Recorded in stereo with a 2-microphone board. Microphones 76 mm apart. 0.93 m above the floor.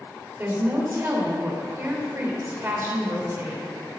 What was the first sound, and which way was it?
A woman speaking, 30° right (ahead or behind).